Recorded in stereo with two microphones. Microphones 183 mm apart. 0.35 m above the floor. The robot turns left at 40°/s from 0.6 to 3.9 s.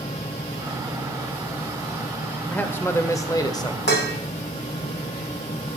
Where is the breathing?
No breathing in this recording.